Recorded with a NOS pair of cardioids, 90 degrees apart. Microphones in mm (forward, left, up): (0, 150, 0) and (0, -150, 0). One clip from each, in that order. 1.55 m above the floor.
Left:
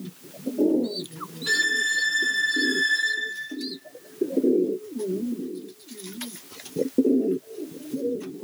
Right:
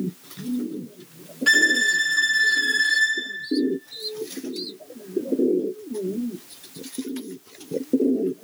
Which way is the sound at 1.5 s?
45° right.